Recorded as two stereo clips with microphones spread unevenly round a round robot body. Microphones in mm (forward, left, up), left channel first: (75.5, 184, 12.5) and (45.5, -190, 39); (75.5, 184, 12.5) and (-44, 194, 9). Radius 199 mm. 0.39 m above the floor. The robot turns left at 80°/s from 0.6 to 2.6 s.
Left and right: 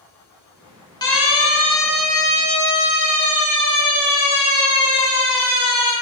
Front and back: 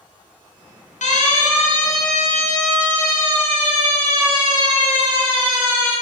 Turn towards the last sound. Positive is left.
turn(degrees=-110)